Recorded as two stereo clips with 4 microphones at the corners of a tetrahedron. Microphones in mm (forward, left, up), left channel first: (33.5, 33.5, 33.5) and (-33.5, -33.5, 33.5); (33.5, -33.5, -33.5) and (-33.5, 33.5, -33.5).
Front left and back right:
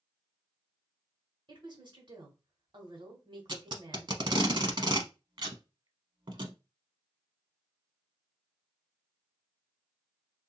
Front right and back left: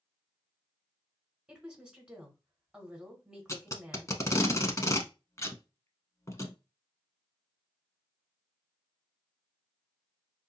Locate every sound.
1.5 s a woman speaking: 145° right, 1.5 m
3.5 s tape being pulled: 100° right, 0.7 m